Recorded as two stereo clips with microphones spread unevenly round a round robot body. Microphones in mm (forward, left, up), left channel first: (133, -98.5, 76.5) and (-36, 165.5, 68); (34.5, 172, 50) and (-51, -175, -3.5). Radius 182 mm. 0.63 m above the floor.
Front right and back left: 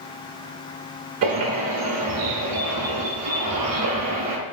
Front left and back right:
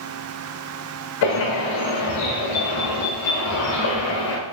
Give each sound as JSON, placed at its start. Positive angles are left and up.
{"t": 1.2, "sound": "a bird", "azimuth_deg": 105, "distance_m": 1.4}